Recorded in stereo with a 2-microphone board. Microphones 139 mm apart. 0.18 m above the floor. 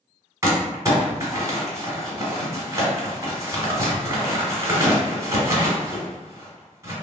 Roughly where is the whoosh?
I don't hear a whoosh.